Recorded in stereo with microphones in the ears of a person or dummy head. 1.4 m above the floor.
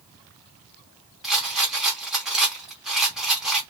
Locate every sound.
1.2 s a rattle: centre (ahead or behind), 0.8 m